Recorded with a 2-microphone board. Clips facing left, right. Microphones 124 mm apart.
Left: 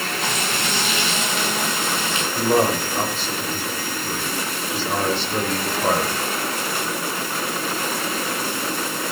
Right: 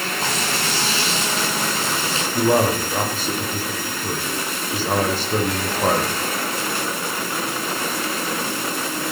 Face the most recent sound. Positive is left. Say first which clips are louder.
# right 1 dB
turn(degrees=-45)  # may be behind; listen again after turning